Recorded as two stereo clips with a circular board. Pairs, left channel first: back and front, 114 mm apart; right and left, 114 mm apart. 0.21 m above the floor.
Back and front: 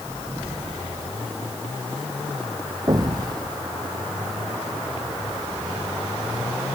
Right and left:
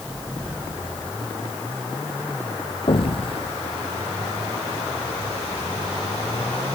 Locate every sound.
2.9 s an explosion: 55° right